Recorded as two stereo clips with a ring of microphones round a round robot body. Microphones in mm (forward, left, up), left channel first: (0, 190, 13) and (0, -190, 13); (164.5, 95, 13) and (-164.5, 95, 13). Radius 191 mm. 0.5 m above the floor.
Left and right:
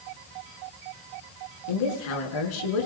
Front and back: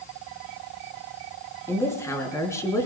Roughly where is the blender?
No blender in this recording.